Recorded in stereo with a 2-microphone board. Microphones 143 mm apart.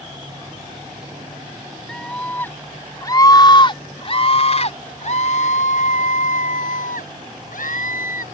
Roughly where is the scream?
Centre.